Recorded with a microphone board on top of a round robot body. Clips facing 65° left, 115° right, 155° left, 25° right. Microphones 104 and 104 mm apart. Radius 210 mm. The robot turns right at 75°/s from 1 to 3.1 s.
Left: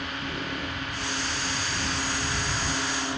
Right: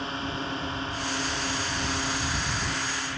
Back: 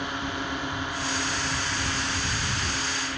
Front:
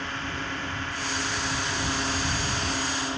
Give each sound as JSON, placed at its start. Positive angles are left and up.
{"t": 0.0, "sound": "a drone", "azimuth_deg": -140}